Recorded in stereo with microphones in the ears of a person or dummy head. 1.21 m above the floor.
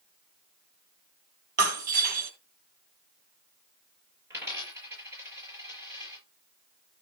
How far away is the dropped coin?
About 8 m.